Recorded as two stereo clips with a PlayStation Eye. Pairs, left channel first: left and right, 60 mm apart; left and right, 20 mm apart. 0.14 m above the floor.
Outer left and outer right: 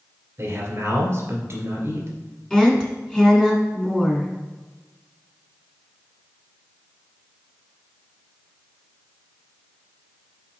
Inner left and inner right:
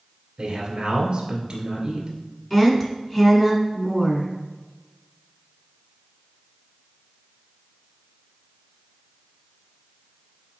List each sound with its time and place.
0.4 s a man speaking: 40° right (ahead or behind), 2 m
2.5 s a woman speaking: 10° left (ahead or behind), 1.6 m